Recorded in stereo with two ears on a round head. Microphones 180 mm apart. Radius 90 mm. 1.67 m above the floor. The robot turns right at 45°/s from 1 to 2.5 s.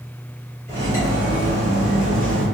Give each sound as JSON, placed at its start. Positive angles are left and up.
{"t": 0.7, "sound": "cutlery clinking", "azimuth_deg": 15, "distance_m": 1.9}